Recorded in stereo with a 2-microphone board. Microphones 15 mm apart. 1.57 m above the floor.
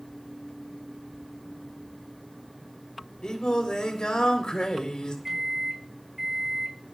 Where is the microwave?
30° right (ahead or behind), 4.5 m.